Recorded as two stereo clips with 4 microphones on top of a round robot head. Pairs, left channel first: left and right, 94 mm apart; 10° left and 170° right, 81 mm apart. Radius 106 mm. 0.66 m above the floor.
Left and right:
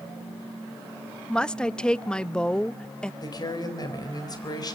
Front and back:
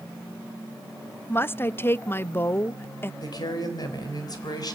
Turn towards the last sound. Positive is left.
turn(degrees=45)